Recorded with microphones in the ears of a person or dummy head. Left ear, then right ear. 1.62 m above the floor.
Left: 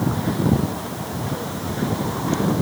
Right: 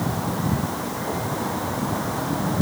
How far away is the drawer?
I don't hear a drawer.